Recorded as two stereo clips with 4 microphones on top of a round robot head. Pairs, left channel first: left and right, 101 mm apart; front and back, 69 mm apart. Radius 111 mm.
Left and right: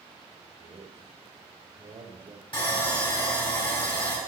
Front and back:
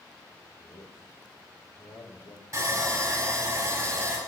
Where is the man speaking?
35° right, 3 m.